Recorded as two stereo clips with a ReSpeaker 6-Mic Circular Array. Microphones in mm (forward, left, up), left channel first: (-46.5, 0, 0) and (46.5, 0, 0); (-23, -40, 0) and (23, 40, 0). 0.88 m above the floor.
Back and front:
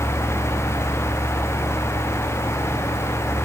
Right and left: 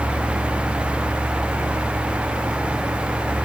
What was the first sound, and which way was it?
Only background noise.